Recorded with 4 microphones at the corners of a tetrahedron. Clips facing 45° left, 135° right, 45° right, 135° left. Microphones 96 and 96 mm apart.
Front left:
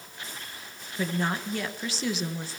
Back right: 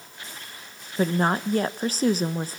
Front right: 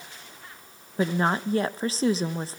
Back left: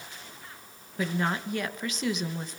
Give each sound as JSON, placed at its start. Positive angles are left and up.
{"t": 1.0, "sound": "a woman speaking", "azimuth_deg": -95, "distance_m": 1.1}